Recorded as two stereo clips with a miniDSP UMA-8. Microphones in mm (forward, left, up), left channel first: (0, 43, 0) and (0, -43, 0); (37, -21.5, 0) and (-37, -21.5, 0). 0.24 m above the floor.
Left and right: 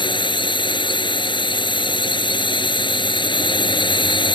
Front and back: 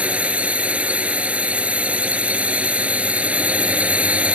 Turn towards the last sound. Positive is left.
turn(degrees=110)